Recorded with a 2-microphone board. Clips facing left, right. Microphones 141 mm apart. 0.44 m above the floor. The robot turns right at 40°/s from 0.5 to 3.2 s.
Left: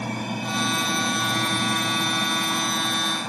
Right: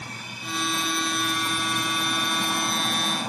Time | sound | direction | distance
0.0 | an aircraft | 80° left | ?